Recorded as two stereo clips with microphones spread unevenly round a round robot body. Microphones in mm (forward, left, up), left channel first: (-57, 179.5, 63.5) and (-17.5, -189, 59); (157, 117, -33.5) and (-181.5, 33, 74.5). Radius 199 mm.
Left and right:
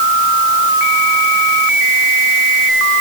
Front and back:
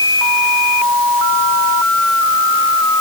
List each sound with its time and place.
Only background noise.